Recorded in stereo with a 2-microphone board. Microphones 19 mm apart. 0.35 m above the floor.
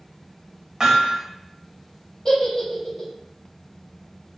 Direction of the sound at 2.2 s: 30° left (ahead or behind).